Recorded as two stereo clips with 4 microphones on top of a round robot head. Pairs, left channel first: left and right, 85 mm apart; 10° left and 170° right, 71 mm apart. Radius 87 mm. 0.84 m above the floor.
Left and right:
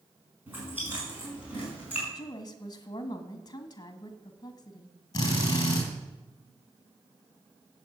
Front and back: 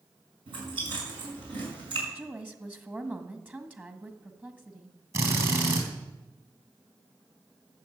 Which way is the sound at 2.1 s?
130° left.